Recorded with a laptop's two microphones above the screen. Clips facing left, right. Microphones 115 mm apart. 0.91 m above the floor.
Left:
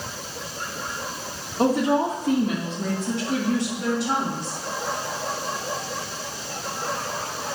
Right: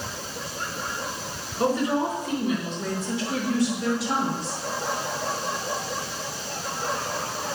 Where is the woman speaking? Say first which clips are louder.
Left 3 dB; 70° left (ahead or behind), 1.7 m; by 4.6 s 65° left (ahead or behind), 3 m.